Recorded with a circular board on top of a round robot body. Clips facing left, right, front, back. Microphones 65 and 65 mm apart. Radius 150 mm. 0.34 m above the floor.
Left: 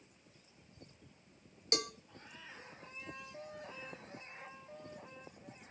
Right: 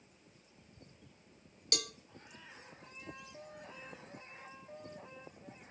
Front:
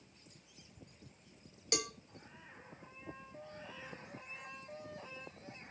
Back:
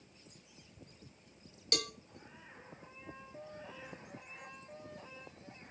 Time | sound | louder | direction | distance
1.7 | a cowbell | left 4 dB, even | 60° left | 1.3 m